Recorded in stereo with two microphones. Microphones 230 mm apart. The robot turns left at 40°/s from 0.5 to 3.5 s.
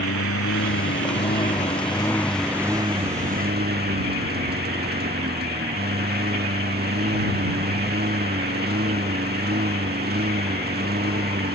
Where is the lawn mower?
75° left; by 11.5 s 45° right.